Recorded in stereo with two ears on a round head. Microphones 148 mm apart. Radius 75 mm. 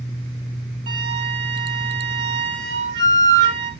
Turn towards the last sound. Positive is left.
turn(degrees=-80)